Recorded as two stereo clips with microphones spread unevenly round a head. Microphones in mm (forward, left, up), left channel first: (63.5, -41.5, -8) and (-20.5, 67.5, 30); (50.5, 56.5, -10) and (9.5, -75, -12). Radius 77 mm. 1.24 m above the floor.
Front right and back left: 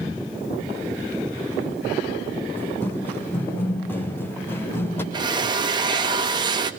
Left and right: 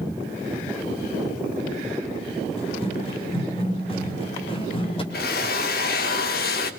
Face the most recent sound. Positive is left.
turn(degrees=70)